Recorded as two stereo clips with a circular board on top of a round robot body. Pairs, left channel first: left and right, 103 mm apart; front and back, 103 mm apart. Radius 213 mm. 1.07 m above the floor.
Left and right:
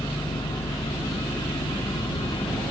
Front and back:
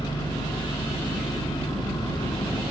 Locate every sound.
0.0 s an engine running: 50° left, 2.5 m